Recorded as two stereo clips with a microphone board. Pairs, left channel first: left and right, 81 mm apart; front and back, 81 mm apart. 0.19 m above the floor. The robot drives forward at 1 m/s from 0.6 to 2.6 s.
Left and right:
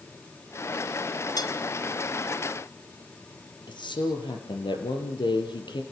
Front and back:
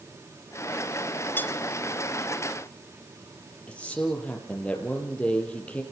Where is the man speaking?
75° left, 4 m.